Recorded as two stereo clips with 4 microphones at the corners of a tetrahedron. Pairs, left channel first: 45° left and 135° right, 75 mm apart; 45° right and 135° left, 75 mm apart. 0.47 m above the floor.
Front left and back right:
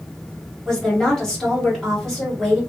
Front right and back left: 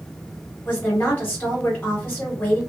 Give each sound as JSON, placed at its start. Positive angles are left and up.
{"t": 0.7, "sound": "a woman speaking", "azimuth_deg": -20, "distance_m": 1.4}